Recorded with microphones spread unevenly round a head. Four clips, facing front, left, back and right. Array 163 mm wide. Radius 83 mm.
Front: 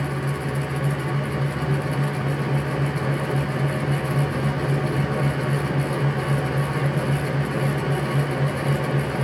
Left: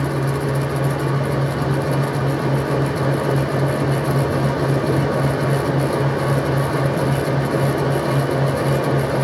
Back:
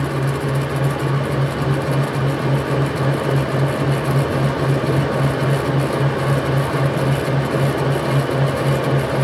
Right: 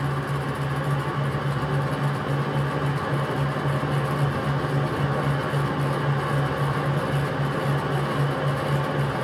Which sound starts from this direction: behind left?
A fan, at 0.0 s.